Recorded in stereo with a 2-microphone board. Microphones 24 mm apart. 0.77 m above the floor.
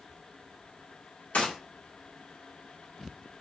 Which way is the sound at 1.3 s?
60° left (ahead or behind).